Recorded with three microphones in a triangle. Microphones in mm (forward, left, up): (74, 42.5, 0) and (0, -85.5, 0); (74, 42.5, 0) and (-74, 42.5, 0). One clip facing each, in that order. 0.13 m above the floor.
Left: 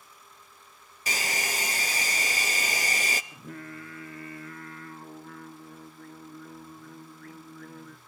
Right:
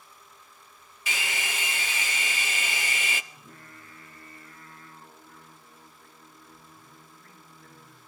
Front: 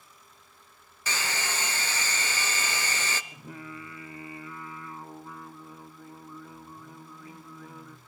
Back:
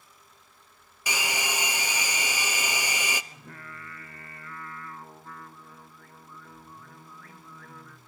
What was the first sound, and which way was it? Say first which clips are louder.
A hair dryer: left 2 dB, back 2 dB; 105° left.